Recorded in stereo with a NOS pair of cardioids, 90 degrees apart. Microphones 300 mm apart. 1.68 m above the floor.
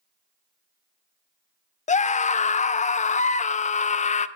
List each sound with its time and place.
1.9 s a scream: 25° left, 0.6 m